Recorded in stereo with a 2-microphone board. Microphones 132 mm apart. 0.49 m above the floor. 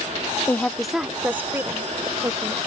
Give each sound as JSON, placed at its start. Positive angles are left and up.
{"t": 0.5, "sound": "a woman speaking", "side_deg": 15}